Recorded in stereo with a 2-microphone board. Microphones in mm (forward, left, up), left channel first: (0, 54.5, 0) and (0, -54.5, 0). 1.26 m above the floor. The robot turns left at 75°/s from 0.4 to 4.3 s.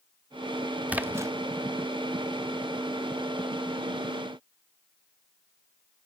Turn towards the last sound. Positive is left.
turn(degrees=85)